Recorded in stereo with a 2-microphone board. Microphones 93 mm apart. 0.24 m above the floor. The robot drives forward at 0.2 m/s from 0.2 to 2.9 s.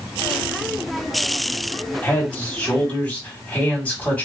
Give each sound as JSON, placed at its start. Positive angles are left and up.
{"t": 2.0, "sound": "a man speaking", "side_deg": 15, "distance_m": 1.3}